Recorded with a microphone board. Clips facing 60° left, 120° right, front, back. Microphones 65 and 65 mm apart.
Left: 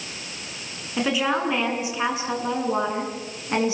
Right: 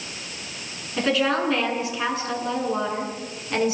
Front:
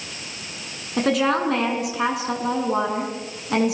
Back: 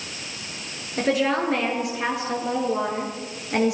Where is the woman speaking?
20° right, 8 m; by 3.8 s straight ahead, 8 m.